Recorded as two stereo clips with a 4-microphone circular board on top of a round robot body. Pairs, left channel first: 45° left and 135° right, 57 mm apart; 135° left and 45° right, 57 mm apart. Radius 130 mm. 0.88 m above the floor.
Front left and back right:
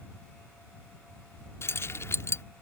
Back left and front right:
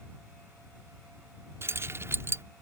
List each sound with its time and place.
1.6 s keys jangling: straight ahead